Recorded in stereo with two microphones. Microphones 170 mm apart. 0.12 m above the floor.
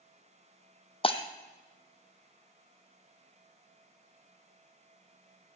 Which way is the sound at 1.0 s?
35° left (ahead or behind).